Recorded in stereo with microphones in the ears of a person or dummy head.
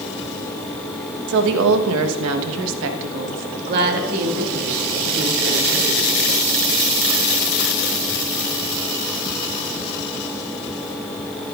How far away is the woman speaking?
About 1.2 m.